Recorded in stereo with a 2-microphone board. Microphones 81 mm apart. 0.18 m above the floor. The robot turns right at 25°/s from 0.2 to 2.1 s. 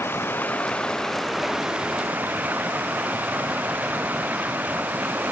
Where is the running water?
155° left; by 5.3 s 160° right.